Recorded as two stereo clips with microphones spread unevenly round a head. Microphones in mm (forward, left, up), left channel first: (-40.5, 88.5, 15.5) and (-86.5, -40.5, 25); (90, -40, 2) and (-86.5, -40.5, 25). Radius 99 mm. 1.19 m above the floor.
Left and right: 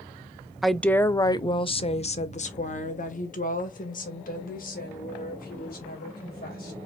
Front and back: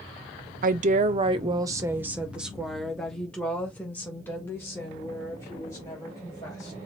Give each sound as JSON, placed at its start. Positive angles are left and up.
{"t": 0.6, "sound": "a woman speaking", "azimuth_deg": 155, "distance_m": 0.7}